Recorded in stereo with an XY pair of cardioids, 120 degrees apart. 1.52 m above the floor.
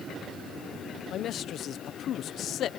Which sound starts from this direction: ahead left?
A man speaking, at 1.1 s.